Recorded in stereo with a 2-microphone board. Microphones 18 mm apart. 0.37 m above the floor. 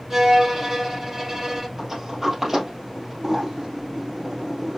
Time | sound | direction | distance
0.1 | a violin | 15° right (ahead or behind) | 3 m
1.8 | a sliding door | 15° right (ahead or behind) | 2.5 m